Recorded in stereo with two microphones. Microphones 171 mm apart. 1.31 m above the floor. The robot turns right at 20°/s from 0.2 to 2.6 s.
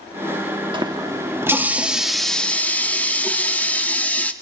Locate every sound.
0.7 s a running tap: 30° right, 1.4 m; by 4.3 s 10° left, 1.4 m